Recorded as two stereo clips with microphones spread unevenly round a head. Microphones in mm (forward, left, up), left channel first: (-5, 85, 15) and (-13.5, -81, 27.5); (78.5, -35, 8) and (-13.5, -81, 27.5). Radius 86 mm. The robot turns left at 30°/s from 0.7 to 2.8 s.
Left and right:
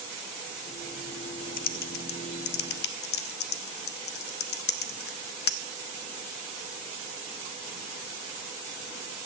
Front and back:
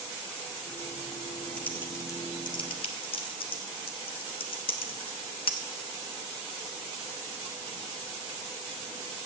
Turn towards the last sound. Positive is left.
turn(degrees=80)